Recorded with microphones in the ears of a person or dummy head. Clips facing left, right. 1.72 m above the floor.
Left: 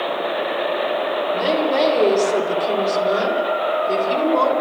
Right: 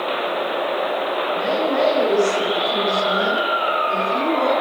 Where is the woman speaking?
65° left (ahead or behind), 6.5 m; by 4.5 s 75° left (ahead or behind), 7.5 m.